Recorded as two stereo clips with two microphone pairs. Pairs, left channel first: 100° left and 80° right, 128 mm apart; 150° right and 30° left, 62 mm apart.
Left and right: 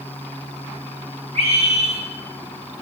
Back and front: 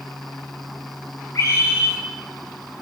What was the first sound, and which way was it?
A scream, 110° right.